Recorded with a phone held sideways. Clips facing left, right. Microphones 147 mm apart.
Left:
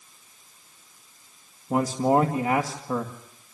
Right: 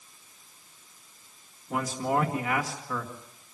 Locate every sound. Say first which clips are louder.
1.7 s a man speaking: left 7 dB; 35° left (ahead or behind), 2 m